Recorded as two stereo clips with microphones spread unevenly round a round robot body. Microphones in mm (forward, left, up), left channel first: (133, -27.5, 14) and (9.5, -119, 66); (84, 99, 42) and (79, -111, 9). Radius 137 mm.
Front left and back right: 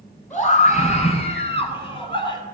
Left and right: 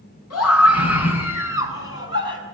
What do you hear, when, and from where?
0.3 s a scream: 120° left, 7.5 m; by 2.4 s 145° left, 6 m